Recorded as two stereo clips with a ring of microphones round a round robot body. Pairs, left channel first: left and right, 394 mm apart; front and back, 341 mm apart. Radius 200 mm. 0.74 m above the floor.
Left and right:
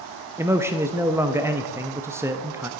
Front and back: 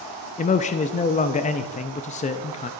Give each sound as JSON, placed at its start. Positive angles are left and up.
{"t": 0.4, "sound": "a man speaking", "azimuth_deg": -15, "distance_m": 0.5}